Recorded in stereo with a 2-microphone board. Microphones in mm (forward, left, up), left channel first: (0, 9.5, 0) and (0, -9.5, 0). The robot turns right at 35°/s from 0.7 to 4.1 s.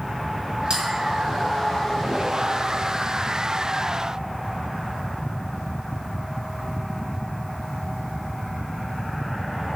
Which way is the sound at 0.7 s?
60° right (ahead or behind).